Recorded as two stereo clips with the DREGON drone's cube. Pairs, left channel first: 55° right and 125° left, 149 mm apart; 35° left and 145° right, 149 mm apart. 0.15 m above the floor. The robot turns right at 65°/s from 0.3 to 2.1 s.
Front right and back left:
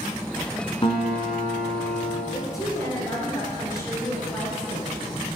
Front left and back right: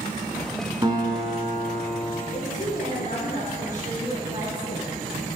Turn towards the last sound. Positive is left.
turn(degrees=10)